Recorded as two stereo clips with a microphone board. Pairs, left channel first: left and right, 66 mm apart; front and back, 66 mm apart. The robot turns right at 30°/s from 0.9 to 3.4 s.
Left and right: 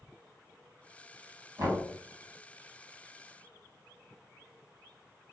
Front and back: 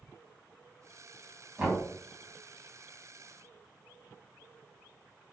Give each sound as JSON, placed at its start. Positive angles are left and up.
{"t": 1.6, "sound": "knocking", "azimuth_deg": -110, "distance_m": 1.5}